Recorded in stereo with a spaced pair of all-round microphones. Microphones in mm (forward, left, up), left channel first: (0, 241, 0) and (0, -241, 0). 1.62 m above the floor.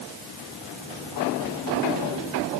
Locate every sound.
Only background noise.